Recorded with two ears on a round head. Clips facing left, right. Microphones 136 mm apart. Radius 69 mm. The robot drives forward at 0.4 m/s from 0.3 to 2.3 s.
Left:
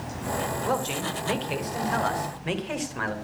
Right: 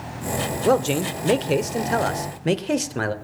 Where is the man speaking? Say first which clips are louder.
Right 12 dB; 60° right (ahead or behind), 1.2 m; by 3.1 s 50° right (ahead or behind), 1.4 m.